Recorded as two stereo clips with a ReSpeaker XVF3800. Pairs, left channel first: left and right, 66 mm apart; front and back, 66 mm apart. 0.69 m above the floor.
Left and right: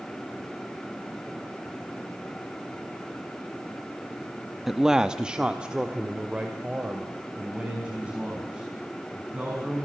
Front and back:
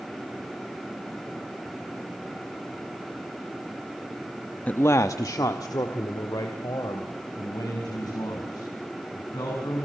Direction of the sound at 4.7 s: 5° right.